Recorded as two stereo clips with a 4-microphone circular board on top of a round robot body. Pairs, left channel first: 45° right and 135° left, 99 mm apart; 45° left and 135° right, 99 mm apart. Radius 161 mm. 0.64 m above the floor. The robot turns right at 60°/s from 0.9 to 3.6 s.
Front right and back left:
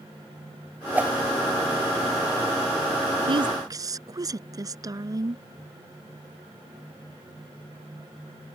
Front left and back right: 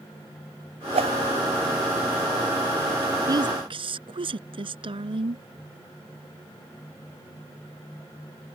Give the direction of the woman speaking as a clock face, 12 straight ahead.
6 o'clock.